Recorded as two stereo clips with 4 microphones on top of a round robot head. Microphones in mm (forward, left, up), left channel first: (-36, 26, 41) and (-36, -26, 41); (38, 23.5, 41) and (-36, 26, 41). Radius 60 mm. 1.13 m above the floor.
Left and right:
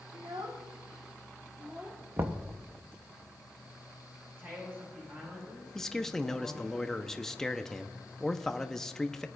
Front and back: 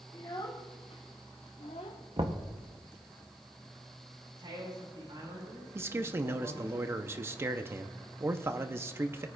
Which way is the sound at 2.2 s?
135° right.